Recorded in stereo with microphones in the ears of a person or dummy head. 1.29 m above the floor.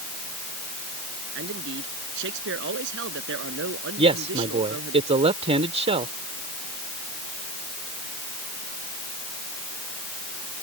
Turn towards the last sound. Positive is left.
turn(degrees=-35)  # may be behind; listen again after turning